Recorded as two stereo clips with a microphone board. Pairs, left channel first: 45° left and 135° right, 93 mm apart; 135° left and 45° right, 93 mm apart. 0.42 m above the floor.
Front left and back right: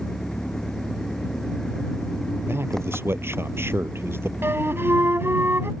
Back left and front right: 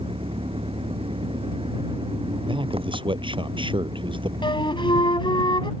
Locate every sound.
0.0 s an engine running: 40° right
2.5 s a man speaking: 70° right
4.4 s a flute: 160° left